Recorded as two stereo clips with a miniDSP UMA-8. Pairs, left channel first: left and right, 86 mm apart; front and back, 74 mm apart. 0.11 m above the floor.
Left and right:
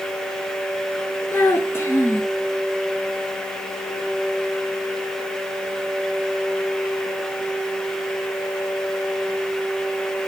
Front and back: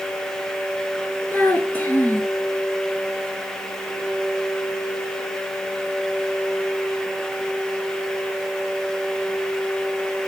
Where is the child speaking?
50° left, 0.9 m.